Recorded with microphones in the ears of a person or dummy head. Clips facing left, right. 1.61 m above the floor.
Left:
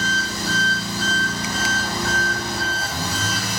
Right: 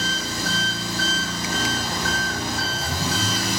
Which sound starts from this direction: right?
An engine running, at 0.0 s.